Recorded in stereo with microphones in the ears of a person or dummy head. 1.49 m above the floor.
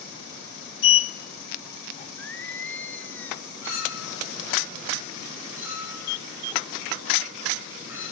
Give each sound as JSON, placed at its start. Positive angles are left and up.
{"t": 0.8, "sound": "a sliding door", "side_deg": 35, "distance_m": 0.6}
{"t": 2.2, "sound": "singing", "side_deg": 5, "distance_m": 0.8}
{"t": 3.6, "sound": "a clink", "side_deg": -15, "distance_m": 10.0}